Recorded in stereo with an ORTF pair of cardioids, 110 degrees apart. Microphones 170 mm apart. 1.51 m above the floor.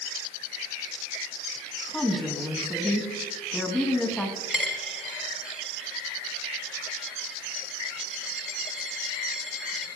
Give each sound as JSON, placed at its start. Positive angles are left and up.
{"t": 1.9, "sound": "a woman speaking", "azimuth_deg": 5, "distance_m": 2.5}
{"t": 4.5, "sound": "a dropped coin", "azimuth_deg": -5, "distance_m": 3.0}